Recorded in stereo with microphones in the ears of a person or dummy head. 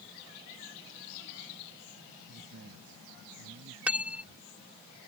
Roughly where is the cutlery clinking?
Centre.